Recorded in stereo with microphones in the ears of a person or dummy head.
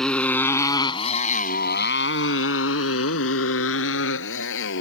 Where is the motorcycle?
Centre (ahead or behind); by 4.8 s 70° left (ahead or behind).